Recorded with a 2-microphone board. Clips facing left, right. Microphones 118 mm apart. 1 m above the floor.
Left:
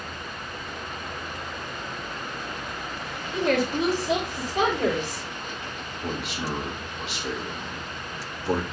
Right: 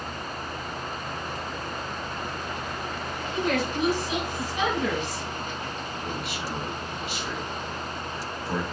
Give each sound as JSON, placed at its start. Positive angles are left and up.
{"t": 3.3, "sound": "a woman speaking", "side_deg": 85, "distance_m": 4.0}
{"t": 6.0, "sound": "a man speaking", "side_deg": 80, "distance_m": 3.0}